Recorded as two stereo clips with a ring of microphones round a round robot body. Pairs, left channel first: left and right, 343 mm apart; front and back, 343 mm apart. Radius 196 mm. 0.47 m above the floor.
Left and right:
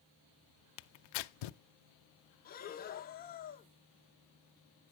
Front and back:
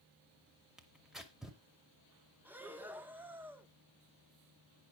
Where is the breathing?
100° left, 0.9 m.